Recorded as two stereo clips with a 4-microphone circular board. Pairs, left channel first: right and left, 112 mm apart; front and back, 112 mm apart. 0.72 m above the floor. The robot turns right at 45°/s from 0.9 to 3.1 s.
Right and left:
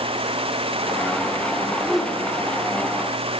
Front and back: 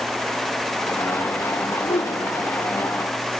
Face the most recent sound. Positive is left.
turn(degrees=55)